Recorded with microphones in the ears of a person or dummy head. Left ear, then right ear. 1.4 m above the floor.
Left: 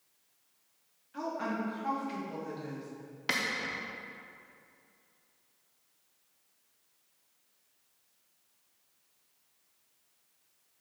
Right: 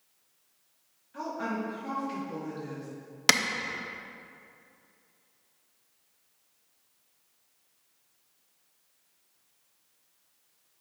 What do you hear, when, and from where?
1.1 s a woman speaking: 10° left (ahead or behind), 1.6 m; by 2.9 s 5° left (ahead or behind), 2.5 m
3.3 s a clap: 85° right, 0.6 m